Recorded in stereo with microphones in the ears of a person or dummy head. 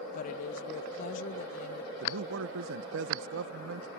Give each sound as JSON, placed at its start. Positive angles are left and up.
{"t": 0.1, "sound": "a woman speaking", "side_deg": 45}
{"t": 2.0, "sound": "a man speaking", "side_deg": -70}